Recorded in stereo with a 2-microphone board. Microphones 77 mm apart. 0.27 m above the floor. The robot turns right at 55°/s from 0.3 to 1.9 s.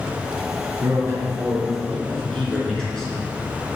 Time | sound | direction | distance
0.8 | a man speaking | 55° right | 3 m